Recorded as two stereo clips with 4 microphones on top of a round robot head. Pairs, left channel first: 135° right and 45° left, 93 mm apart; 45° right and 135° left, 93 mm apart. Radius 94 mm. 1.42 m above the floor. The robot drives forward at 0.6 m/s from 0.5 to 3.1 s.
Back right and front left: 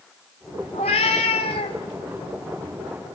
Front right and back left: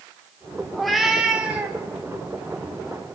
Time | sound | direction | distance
0.7 | a cat meowing | 125° right | 1.1 m